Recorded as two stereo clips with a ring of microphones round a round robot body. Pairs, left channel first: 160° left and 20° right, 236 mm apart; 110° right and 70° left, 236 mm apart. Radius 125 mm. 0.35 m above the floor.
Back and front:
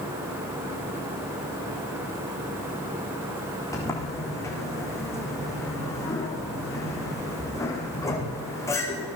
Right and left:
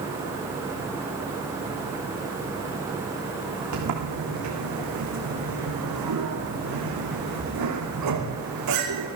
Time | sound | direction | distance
3.7 | a sliding door | 80° left | 6 m